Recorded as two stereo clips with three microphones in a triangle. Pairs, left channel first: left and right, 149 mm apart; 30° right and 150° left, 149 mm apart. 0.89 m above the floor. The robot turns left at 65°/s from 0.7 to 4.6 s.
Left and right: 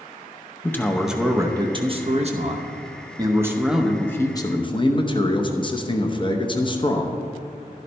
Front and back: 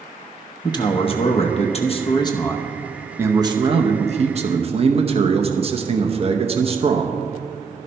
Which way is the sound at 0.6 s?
20° left.